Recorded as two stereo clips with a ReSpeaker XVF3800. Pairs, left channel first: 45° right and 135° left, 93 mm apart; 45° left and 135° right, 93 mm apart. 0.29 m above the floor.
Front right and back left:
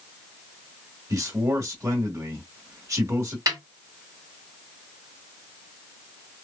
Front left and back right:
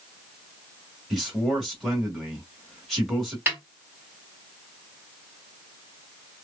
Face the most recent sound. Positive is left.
turn(degrees=160)